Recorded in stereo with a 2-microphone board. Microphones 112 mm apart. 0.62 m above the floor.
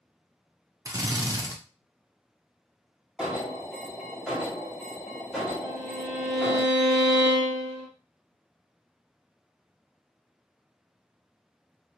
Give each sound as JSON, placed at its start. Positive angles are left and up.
{"t": 0.8, "sound": "a drill", "side_deg": -30, "distance_m": 0.6}
{"t": 3.2, "sound": "an alarm", "side_deg": -5, "distance_m": 1.1}
{"t": 5.6, "sound": "a violin", "side_deg": -60, "distance_m": 1.2}